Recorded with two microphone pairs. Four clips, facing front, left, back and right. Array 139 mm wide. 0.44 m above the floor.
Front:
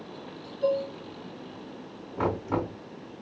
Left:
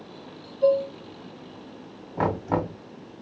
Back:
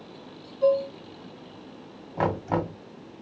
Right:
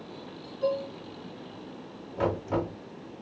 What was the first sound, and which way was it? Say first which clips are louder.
Dishes clattering: left 8 dB, back 5 dB; 175° right.